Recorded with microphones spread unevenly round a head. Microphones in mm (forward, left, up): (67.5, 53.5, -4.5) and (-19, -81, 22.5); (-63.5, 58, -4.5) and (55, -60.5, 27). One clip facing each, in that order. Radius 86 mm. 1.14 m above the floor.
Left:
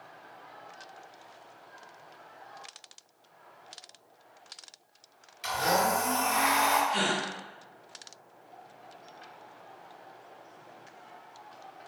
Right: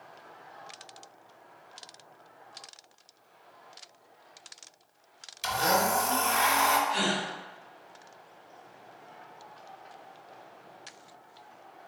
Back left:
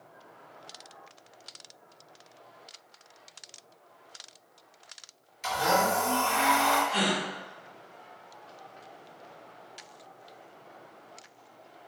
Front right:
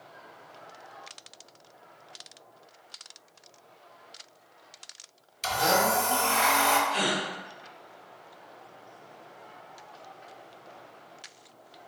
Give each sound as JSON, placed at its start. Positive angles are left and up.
{"t": 5.4, "sound": "a blender", "azimuth_deg": -95, "distance_m": 1.0}
{"t": 6.9, "sound": "a gasp", "azimuth_deg": 115, "distance_m": 1.1}